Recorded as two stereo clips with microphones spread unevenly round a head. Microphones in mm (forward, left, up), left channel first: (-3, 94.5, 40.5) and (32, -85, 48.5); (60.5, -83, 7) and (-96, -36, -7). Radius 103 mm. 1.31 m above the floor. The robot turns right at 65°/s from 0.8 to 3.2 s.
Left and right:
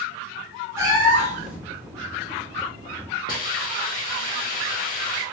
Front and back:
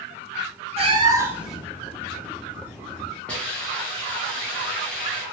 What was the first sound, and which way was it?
A cat meowing, 150° right.